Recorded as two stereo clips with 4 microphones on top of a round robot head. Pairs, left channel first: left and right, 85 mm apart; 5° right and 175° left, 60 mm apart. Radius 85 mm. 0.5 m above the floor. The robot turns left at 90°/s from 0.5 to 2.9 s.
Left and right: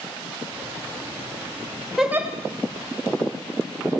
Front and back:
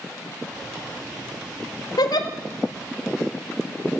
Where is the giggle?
Straight ahead, 1.2 m; by 2.3 s 30° right, 1.2 m.